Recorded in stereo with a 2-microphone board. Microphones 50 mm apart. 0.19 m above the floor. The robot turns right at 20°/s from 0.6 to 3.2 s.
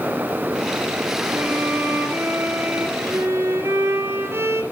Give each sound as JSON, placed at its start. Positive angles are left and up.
{"t": 1.3, "sound": "a violin", "azimuth_deg": -140, "distance_m": 2.5}